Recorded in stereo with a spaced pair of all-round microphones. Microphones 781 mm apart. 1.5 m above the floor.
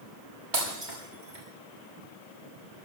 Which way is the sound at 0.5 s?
70° right (ahead or behind).